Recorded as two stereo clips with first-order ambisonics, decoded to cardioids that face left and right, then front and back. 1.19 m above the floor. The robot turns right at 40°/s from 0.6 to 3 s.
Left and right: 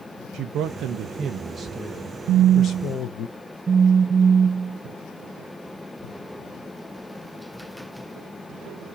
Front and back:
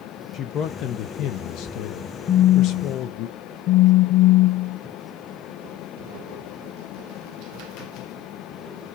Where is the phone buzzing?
55° right, 0.8 m; by 4.8 s 25° right, 0.8 m.